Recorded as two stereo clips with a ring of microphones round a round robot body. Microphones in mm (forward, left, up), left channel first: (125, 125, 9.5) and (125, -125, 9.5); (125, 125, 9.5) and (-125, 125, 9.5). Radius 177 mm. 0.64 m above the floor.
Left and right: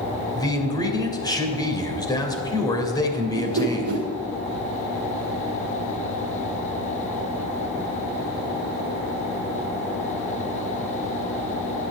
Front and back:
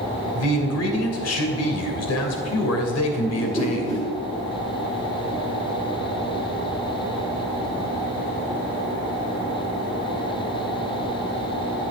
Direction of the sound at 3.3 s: 75° right.